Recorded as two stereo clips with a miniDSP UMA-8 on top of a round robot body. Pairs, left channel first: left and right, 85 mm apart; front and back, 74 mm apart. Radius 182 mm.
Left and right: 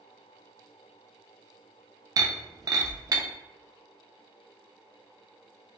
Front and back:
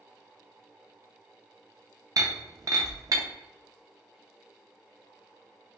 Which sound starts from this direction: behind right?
Breaking glass, at 2.2 s.